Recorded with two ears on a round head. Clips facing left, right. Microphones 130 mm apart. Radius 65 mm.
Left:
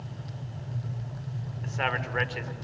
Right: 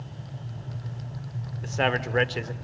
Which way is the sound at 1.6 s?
40° right (ahead or behind).